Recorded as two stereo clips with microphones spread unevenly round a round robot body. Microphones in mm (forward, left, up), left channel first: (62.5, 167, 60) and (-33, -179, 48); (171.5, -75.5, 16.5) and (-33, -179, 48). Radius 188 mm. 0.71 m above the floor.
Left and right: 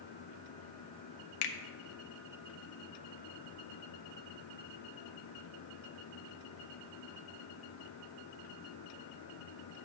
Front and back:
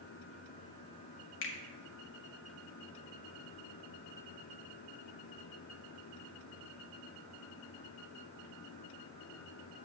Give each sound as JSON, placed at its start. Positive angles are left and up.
{"t": 1.4, "sound": "a finger snap", "azimuth_deg": 60, "distance_m": 0.8}